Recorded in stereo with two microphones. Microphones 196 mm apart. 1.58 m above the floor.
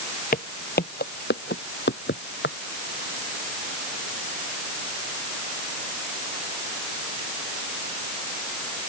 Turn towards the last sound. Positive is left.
turn(degrees=70)  # may be behind; listen again after turning